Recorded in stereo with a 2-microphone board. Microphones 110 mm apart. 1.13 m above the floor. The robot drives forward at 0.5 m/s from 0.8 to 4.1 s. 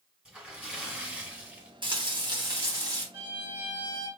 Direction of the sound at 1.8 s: 50° right (ahead or behind).